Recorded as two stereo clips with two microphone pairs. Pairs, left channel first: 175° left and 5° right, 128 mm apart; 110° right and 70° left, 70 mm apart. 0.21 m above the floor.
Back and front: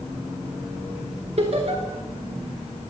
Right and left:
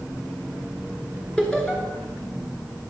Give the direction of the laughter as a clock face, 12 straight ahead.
1 o'clock.